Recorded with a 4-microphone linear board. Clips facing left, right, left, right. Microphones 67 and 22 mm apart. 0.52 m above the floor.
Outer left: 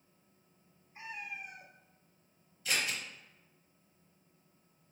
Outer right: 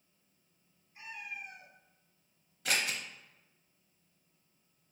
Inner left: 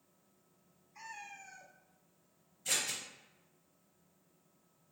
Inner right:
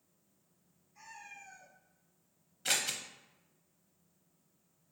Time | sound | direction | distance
0.9 | a cat meowing | 35° left (ahead or behind) | 1.1 m
2.6 | scissors | 70° right (ahead or behind) | 0.7 m